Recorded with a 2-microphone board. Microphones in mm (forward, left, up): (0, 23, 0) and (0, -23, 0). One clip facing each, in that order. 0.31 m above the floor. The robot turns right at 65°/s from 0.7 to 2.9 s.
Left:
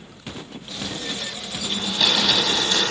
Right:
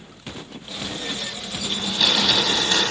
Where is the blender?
150° left, 1.0 m; by 2.9 s 130° right, 1.0 m.